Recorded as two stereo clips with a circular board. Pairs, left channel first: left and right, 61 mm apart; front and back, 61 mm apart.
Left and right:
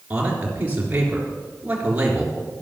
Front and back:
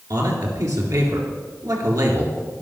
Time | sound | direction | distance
0.1 | a man speaking | 155° right | 3.5 m